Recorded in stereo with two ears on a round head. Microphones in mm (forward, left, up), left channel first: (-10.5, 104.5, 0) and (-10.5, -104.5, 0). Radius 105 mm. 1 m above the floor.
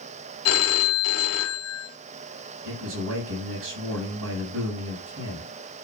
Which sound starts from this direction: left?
A phone ringing, at 0.5 s.